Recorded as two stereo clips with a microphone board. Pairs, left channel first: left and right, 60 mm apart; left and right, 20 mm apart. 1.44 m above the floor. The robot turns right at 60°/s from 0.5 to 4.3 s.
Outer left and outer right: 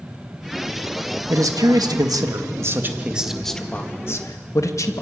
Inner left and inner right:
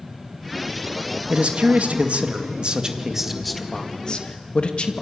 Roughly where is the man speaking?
Behind right.